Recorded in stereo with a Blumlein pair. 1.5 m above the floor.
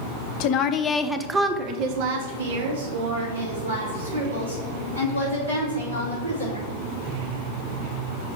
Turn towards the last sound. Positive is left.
turn(degrees=-80)